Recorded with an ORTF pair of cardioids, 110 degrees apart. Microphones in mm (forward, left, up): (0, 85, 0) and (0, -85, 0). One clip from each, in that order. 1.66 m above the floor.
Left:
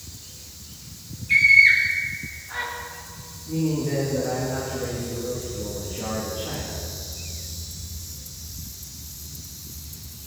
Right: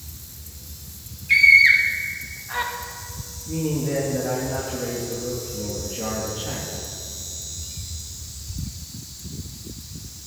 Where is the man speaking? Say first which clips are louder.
Even; 15° right, 2.5 m.